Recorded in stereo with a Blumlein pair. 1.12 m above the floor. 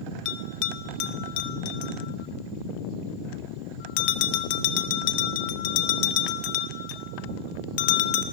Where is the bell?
45° left, 0.6 m.